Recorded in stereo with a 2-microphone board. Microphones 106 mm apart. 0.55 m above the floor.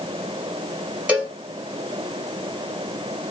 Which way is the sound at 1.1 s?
10° right (ahead or behind).